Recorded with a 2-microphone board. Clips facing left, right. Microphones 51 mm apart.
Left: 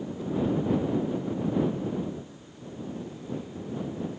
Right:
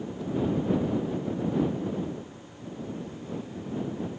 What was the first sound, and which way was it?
Only background noise.